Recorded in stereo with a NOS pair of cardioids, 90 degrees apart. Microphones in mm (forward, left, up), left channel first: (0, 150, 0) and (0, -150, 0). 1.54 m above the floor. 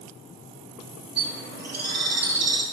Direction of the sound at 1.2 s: 35° right.